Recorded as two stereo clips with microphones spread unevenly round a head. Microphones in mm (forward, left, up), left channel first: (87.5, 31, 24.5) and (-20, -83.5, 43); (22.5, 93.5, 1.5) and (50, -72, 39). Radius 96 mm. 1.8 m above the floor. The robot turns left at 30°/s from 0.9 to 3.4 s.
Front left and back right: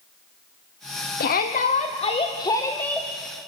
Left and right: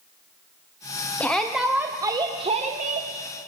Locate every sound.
1.2 s a shout: 15° left, 1.3 m; by 3.1 s 40° right, 1.3 m